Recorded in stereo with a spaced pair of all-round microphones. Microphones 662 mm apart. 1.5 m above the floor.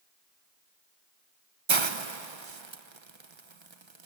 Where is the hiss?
45° right (ahead or behind), 1.0 m.